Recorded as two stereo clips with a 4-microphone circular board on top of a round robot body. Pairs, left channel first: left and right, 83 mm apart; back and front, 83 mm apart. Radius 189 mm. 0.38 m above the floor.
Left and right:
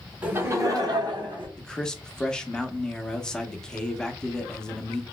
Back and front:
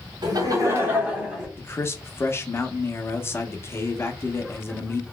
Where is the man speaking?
160° left, 0.9 m.